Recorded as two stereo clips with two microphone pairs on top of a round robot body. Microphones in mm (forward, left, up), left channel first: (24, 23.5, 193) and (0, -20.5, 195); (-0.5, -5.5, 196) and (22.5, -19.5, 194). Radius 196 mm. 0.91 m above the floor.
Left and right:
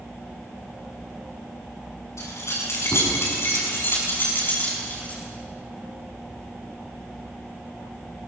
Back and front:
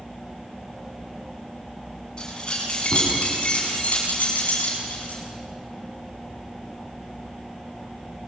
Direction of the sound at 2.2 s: 85° left.